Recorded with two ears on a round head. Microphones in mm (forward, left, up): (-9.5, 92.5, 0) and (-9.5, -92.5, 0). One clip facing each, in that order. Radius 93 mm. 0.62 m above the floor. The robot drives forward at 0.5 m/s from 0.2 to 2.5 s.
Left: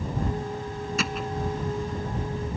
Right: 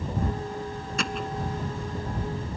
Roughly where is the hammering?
Centre.